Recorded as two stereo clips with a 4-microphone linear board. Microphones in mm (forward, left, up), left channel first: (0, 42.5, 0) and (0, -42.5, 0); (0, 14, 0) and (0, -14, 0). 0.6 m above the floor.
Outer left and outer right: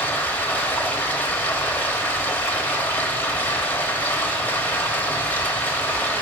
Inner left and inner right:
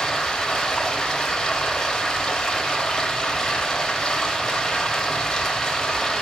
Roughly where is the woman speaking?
I don't hear a woman speaking.